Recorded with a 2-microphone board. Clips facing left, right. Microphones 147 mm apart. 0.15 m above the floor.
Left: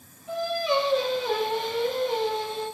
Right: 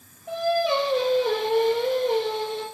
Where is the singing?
60° right (ahead or behind), 3.5 m.